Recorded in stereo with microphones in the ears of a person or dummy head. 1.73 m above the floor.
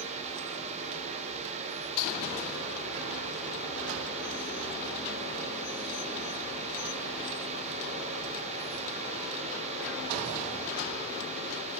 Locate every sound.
0.0 s a fan: 35° right (ahead or behind), 0.9 m